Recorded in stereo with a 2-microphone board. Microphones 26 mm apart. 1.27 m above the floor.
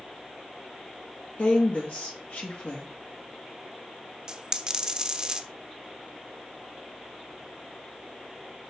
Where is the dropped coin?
30° right (ahead or behind), 0.8 m.